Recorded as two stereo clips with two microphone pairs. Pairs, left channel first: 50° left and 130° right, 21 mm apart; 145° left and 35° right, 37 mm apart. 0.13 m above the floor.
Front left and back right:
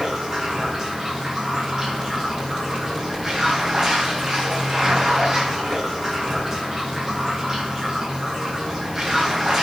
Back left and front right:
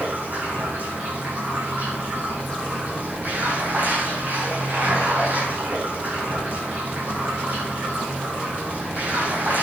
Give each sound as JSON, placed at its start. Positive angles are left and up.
{"t": 0.0, "sound": "running water", "azimuth_deg": -70, "distance_m": 7.0}